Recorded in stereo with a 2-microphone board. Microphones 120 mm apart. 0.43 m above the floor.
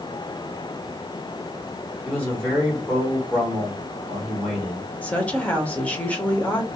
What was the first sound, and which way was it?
A man speaking, 10° left (ahead or behind).